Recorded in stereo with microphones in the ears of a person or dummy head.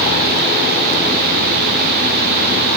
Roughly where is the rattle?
I don't hear a rattle.